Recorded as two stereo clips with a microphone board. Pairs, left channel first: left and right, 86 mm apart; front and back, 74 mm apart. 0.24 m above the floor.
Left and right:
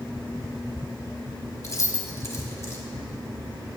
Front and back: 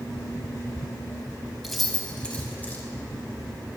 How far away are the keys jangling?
About 1.2 m.